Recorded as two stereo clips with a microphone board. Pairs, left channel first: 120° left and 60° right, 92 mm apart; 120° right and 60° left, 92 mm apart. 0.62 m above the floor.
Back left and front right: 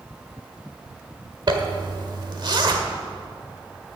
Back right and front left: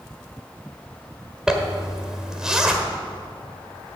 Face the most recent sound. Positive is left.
turn(degrees=-20)